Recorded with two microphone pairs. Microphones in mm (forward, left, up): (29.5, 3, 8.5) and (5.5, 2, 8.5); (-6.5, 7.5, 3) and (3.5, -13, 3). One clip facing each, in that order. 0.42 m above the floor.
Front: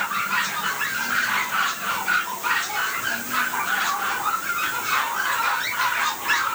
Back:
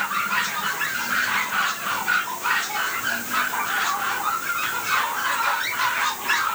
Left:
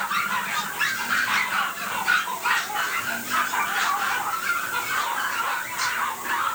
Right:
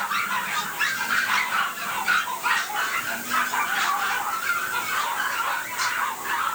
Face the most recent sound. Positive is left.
No sound to turn to.